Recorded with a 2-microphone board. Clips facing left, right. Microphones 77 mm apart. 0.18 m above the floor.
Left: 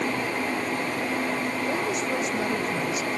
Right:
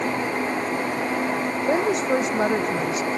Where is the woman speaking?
50° right (ahead or behind).